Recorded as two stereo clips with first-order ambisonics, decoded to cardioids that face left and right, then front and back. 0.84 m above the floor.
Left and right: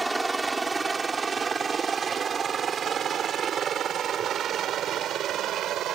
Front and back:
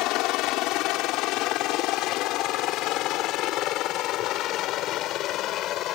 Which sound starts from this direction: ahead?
A helicopter, at 0.0 s.